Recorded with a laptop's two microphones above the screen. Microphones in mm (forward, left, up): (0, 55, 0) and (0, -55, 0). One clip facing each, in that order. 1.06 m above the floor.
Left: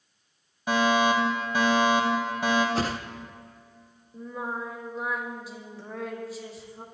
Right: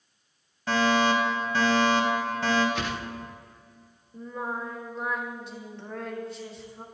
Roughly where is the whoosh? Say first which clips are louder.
Left 3 dB; left.